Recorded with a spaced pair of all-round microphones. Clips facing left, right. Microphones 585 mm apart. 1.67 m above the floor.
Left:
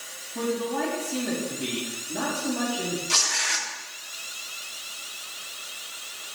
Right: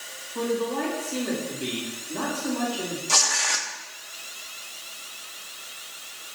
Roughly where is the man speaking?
Centre.